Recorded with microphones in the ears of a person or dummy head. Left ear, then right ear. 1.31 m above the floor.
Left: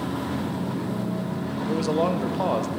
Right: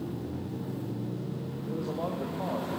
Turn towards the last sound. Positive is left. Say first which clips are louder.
# left 10 dB
turn(degrees=65)  # may be behind; listen again after turning